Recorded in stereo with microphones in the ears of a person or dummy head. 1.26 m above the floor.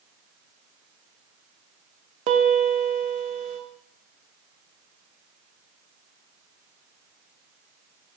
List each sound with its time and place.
2.3 s a piano: 35° right (ahead or behind), 0.7 m